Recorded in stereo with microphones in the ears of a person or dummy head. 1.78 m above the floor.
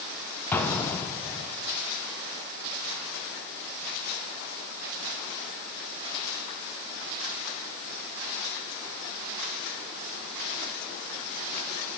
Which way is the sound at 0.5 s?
10° left (ahead or behind).